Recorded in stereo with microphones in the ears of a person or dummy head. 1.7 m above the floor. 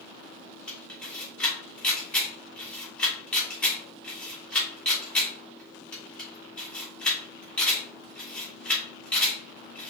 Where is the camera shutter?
5° left (ahead or behind), 1.3 m.